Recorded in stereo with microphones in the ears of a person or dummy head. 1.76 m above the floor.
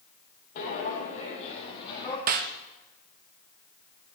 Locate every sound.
0.6 s footsteps: 45° left (ahead or behind), 3.5 m; by 2.2 s 20° left (ahead or behind), 3 m
2.3 s a snare drum: 40° right (ahead or behind), 0.9 m